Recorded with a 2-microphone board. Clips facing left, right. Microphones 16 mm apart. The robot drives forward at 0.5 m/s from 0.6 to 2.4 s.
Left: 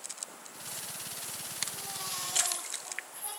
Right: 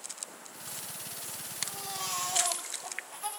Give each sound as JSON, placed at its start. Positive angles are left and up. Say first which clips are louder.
{"t": 1.6, "sound": "a baby crying", "louder": "right 4 dB", "side_deg": -85, "distance_m": 8.5}